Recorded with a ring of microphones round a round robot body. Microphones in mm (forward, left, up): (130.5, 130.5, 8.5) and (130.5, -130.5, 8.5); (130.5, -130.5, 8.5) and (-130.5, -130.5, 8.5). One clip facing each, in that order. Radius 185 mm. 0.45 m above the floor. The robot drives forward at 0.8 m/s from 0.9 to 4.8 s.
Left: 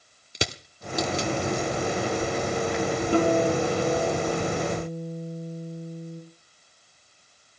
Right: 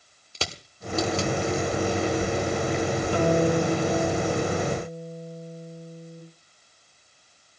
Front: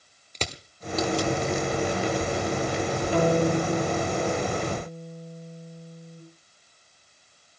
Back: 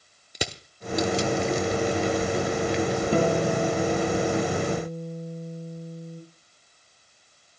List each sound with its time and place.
0.3 s crushing: 125° left, 1.0 m; by 3.0 s 170° left, 2 m
3.1 s a guitar: 165° left, 6 m; by 6.2 s 170° left, 7 m